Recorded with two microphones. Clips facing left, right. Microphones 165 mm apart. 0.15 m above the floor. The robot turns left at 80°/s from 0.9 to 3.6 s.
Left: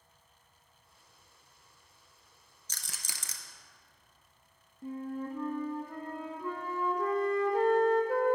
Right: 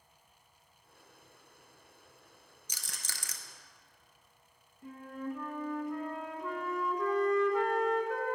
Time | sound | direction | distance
2.7 | a rattle | 15° right (ahead or behind) | 0.7 m
4.8 | a flute | 35° left (ahead or behind) | 0.8 m